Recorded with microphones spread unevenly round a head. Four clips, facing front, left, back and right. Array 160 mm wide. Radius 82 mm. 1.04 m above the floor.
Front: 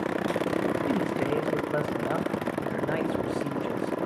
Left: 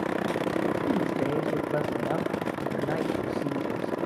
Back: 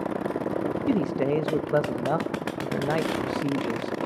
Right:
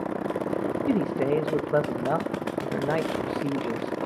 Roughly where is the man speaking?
Right.